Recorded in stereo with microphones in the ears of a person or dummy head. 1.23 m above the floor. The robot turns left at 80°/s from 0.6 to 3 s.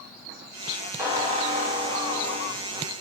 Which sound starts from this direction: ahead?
A squeak, at 1.0 s.